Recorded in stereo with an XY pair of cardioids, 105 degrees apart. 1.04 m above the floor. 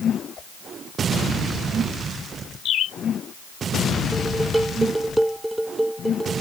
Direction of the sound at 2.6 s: 70° left.